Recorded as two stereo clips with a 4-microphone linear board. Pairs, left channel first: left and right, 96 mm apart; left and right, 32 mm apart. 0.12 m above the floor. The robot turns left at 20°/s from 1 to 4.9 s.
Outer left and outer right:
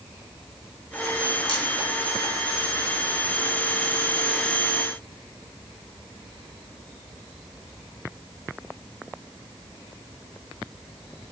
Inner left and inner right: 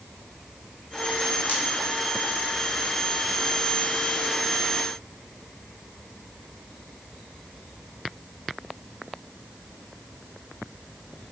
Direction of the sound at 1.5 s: 60° left (ahead or behind).